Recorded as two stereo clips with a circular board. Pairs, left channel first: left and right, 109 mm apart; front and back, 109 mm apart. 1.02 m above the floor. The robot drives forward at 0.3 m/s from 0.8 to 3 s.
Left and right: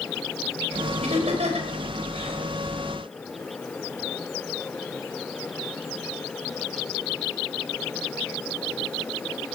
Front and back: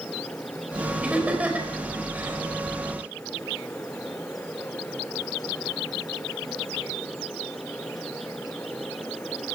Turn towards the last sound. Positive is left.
turn(degrees=-110)